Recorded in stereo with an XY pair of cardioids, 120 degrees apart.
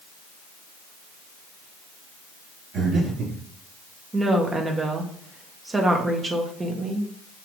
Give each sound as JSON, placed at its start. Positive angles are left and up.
{"t": 2.7, "sound": "breathing", "azimuth_deg": -60, "distance_m": 3.0}
{"t": 4.1, "sound": "a woman speaking", "azimuth_deg": -25, "distance_m": 1.8}